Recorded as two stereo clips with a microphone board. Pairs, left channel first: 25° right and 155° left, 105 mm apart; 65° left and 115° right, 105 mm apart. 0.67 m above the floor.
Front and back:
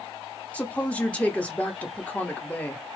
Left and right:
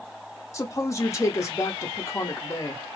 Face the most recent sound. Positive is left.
turn(degrees=45)